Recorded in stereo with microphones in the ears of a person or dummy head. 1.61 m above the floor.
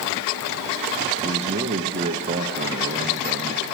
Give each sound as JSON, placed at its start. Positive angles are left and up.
{"t": 1.2, "sound": "a man speaking", "side_deg": -35, "distance_m": 0.9}